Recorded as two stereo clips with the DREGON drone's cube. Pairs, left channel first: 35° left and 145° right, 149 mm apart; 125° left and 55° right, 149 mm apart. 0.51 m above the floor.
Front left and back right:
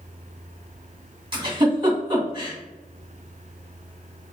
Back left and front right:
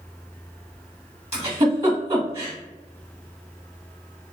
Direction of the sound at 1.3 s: 95° right.